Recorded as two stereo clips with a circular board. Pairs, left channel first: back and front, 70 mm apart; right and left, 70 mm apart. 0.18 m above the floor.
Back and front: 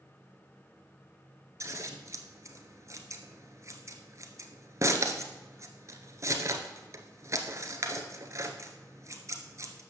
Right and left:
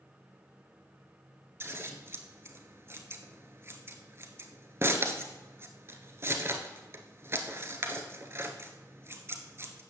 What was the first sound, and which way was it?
Scissors, 40° left.